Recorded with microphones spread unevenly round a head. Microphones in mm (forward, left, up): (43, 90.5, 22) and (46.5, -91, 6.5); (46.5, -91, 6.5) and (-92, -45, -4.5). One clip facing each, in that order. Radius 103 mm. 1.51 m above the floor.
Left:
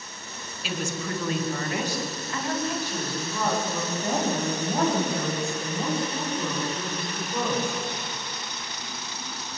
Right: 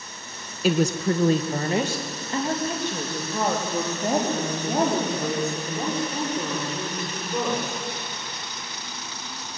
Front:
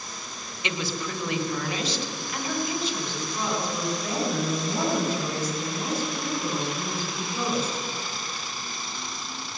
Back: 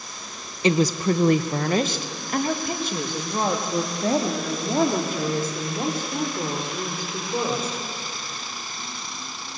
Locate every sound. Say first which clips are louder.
0.6 s a woman speaking: right 10 dB, back 11 dB; 145° right, 1.0 m; by 7.8 s 165° right, 7 m